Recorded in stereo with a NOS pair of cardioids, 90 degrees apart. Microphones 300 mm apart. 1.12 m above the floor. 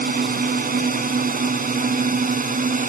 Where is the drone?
30° right; by 2.9 s 25° right.